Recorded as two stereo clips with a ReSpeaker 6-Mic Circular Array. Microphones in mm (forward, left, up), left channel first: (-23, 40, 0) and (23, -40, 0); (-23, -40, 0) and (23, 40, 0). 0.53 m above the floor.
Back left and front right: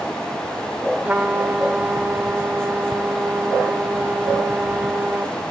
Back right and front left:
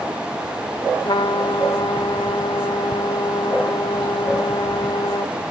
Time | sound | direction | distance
1.1 | a trumpet | 130° right | 0.9 m